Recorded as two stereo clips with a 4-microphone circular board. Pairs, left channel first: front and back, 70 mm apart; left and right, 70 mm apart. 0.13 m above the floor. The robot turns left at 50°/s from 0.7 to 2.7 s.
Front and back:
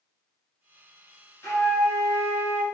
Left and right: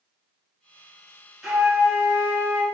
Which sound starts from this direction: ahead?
A flute, at 1.4 s.